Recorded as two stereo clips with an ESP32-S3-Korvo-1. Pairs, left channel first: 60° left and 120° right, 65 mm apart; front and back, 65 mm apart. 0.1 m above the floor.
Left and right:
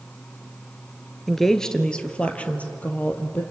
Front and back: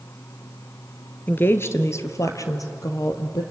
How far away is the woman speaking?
About 1.3 m.